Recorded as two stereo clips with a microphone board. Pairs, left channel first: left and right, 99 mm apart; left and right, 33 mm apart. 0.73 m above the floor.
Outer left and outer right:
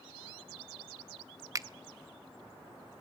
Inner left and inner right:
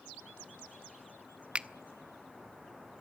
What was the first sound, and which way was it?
A finger snap, 35° right (ahead or behind).